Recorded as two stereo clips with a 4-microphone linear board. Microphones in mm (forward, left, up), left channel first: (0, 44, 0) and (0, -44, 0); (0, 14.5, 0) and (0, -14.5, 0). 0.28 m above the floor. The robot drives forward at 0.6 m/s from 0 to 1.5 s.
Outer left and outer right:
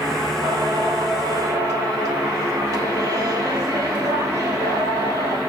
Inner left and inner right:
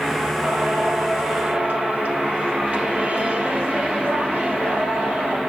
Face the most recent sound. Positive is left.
turn(degrees=-40)  # may be behind; listen again after turning